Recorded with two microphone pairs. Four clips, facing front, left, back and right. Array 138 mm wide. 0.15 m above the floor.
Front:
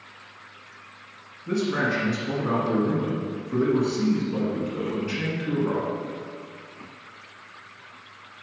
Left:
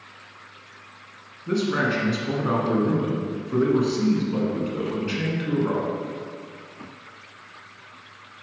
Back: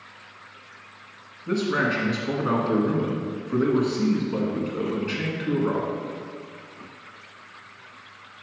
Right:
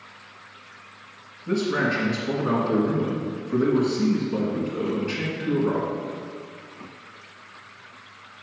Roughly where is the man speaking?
Behind.